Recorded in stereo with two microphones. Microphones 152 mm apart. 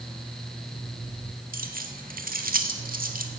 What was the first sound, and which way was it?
Keys jangling, 70° right (ahead or behind).